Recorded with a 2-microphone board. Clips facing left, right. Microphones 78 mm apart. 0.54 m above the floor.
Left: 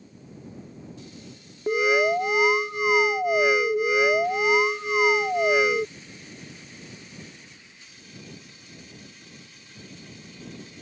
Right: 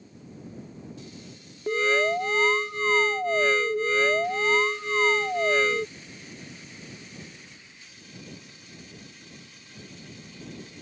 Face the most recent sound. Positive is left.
turn(degrees=10)  # may be behind; listen again after turning